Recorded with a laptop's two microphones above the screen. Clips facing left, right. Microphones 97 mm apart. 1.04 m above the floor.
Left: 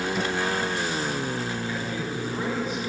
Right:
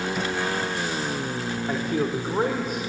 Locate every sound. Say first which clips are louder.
1.7 s a man speaking: right 5 dB; 60° right (ahead or behind), 2.5 m; by 2.8 s 55° right (ahead or behind), 4 m